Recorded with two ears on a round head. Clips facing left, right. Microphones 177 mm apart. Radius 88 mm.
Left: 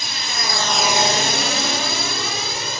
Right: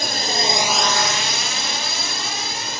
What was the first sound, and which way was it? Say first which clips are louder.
A drone: right 6 dB; 45° right (ahead or behind).